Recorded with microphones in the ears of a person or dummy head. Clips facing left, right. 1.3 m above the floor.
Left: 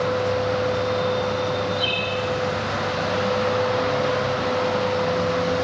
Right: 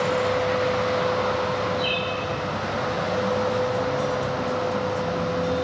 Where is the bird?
10° left (ahead or behind), 1.5 m.